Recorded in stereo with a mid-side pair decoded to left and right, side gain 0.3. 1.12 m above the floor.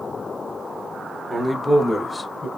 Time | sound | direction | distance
1.3 | a man speaking | 10° right | 1.0 m